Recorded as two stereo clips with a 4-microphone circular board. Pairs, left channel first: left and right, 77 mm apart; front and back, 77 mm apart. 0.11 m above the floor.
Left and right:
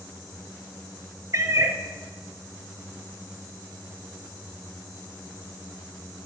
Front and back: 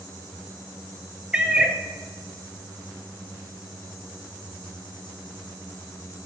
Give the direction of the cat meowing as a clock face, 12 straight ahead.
4 o'clock.